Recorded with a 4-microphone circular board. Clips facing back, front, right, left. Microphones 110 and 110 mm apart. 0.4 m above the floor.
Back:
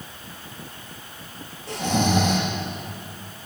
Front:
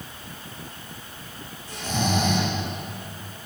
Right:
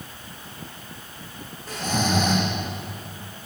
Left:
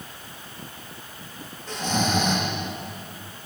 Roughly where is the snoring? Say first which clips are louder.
Back 4 dB, even; behind.